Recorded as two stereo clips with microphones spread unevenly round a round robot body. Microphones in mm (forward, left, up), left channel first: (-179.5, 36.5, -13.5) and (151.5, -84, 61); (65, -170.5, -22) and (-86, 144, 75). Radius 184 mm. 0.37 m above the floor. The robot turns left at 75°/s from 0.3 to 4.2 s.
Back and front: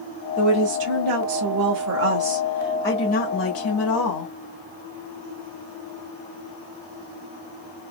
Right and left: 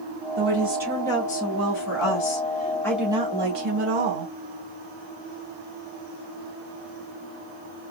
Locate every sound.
0.4 s a woman speaking: 55° left, 1.1 m; by 4.3 s 125° left, 1.1 m